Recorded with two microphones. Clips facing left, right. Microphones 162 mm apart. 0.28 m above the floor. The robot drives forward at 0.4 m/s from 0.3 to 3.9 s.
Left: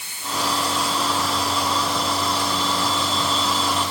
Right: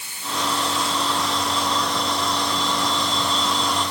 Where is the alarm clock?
I don't hear an alarm clock.